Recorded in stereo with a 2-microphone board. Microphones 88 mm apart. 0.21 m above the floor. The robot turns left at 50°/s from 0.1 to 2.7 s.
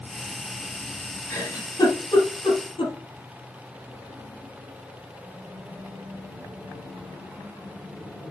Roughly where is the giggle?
Left.